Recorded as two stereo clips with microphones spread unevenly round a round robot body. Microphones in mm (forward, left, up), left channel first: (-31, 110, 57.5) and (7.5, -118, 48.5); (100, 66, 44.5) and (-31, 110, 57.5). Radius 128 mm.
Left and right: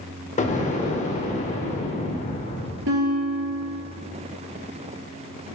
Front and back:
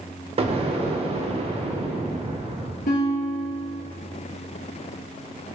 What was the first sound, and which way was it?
An explosion, 140° left.